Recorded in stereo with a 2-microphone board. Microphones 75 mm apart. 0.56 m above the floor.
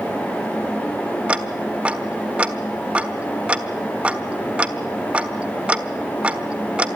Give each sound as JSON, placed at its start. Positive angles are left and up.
{"t": 1.3, "sound": "ticking", "side_deg": -20, "distance_m": 1.3}